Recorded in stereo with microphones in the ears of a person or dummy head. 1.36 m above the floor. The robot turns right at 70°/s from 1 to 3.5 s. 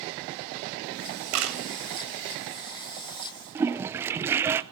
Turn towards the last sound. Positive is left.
turn(degrees=-15)  # may be behind; listen again after turning